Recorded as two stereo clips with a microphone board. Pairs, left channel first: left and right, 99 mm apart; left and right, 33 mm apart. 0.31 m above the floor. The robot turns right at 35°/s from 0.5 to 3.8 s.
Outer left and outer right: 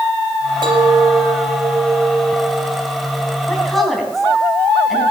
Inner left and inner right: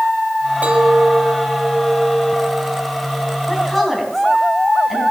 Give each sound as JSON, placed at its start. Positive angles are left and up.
{"t": 0.6, "sound": "a clink", "azimuth_deg": -95, "distance_m": 1.3}
{"t": 3.5, "sound": "a woman speaking", "side_deg": 10, "distance_m": 3.0}